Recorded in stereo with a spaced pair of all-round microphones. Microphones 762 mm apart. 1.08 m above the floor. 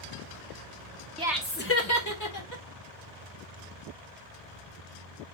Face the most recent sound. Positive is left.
turn(degrees=25)  # may be behind; listen again after turning